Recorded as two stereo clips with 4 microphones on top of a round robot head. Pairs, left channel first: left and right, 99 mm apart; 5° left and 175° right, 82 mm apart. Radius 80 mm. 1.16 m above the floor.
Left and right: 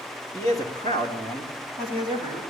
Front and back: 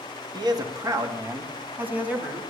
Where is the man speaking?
155° left, 2.5 m; by 2.4 s 110° left, 3 m.